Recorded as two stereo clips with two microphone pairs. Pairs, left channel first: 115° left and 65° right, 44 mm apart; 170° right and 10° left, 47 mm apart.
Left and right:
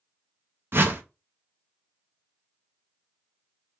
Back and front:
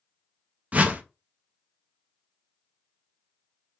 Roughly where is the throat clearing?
I don't hear throat clearing.